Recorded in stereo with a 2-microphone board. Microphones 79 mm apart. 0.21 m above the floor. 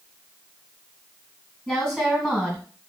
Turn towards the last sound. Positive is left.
turn(degrees=0)  # may be behind; listen again after turning